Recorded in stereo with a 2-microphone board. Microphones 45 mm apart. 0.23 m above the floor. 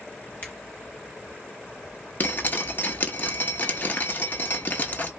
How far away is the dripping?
About 0.7 m.